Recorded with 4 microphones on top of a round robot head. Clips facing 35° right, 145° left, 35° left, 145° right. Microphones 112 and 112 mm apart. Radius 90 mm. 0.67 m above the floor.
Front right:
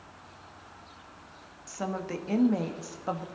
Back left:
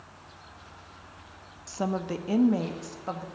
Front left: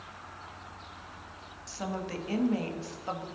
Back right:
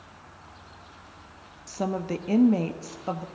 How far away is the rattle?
No rattle in this recording.